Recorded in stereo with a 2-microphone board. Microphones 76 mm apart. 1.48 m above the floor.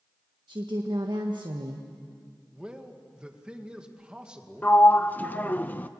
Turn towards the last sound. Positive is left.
turn(degrees=20)  # may be behind; listen again after turning